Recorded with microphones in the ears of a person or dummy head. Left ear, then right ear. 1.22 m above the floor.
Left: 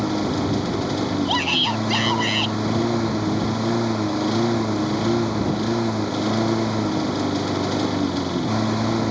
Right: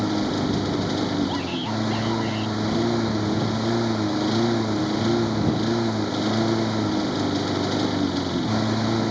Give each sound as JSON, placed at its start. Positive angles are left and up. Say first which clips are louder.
{"t": 0.0, "sound": "a lawn mower", "louder": "left 1 dB", "side_deg": 10}
{"t": 1.2, "sound": "a shout", "louder": "left 7 dB", "side_deg": 65}